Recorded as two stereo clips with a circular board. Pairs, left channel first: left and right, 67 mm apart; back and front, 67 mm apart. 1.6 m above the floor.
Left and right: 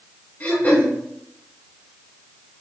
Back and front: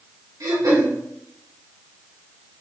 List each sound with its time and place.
0.4 s throat clearing: 25° left, 2.5 m